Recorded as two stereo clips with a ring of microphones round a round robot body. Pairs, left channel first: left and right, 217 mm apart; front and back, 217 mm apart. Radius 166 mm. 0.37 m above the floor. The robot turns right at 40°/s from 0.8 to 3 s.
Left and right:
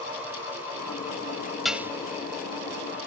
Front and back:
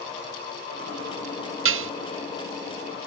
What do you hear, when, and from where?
1.6 s dishes clattering: straight behind; by 1.9 s 170° right